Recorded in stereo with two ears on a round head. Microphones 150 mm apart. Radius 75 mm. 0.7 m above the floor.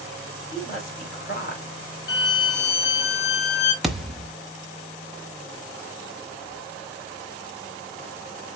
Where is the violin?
75° left (ahead or behind), 4 m.